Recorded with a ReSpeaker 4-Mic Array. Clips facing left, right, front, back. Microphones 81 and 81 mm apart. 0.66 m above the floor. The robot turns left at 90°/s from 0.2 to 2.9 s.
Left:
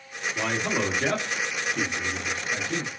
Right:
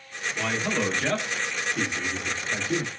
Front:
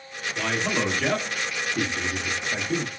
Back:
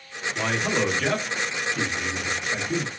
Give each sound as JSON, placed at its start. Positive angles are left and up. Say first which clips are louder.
{"t": 0.3, "sound": "a man speaking", "louder": "even, back 1 dB", "azimuth_deg": 150, "distance_m": 1.2}